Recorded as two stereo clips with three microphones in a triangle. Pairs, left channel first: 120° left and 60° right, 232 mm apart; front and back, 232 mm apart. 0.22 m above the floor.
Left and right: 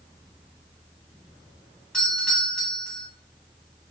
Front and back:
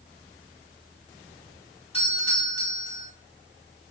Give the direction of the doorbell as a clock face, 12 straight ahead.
11 o'clock.